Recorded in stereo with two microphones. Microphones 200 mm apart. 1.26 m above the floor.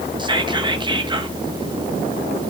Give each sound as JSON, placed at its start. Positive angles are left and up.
{"t": 0.2, "sound": "whispering", "side_deg": -20, "distance_m": 1.3}